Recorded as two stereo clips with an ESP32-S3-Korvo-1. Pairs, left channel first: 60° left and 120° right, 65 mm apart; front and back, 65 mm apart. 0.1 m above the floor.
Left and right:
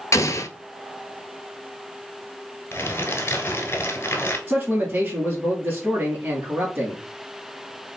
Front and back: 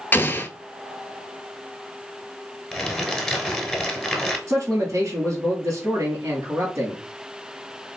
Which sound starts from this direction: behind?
A man speaking, at 4.5 s.